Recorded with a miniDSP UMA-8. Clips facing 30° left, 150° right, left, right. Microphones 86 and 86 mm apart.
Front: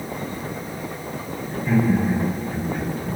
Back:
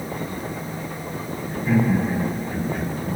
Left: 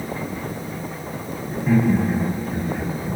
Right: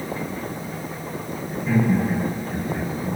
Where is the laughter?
130° left, 1.2 m; by 3.2 s 110° left, 3 m.